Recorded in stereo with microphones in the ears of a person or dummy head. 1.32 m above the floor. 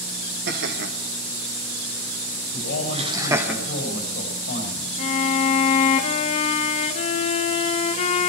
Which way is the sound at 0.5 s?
55° right (ahead or behind).